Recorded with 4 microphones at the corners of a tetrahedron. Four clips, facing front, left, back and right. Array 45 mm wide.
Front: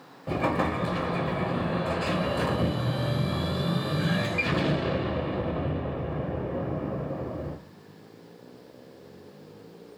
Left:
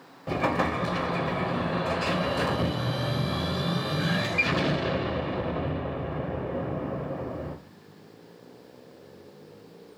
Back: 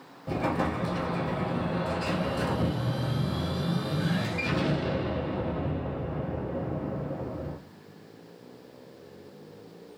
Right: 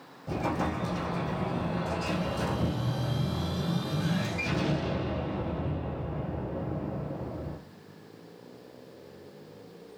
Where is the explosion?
65° left, 0.7 m.